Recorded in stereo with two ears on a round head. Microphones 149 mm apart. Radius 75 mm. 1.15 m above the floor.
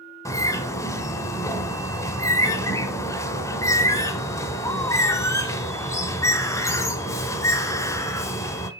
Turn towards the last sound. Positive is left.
turn(degrees=20)  # may be behind; listen again after turning